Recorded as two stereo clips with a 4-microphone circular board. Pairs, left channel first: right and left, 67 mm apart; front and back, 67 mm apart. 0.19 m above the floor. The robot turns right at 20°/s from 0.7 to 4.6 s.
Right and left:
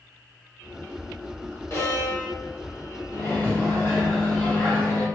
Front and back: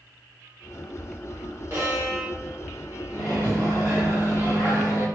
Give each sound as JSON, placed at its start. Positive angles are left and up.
{"t": 1.7, "sound": "a violin", "azimuth_deg": -140, "distance_m": 1.4}
{"t": 3.1, "sound": "a microwave", "azimuth_deg": -60, "distance_m": 1.8}